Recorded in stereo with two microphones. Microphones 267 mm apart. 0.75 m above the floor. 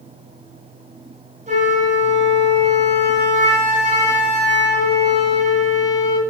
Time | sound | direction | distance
1.5 | a flute | 30° right (ahead or behind) | 3.5 m